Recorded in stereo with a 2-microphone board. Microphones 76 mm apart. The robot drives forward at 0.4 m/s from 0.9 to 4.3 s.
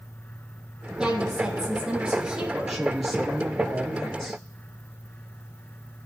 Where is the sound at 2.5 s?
Centre (ahead or behind), 3 m.